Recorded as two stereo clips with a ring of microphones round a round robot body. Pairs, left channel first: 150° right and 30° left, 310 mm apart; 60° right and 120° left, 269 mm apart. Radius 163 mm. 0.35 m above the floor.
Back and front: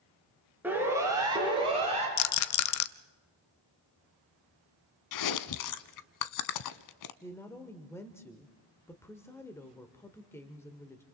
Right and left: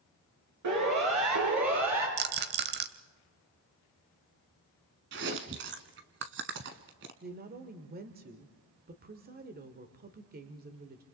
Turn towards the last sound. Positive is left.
turn(degrees=135)